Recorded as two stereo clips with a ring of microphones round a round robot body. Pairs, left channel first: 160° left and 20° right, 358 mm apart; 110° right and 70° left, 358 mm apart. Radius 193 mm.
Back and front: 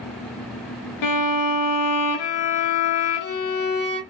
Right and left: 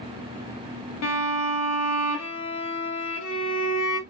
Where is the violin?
165° right, 0.8 m.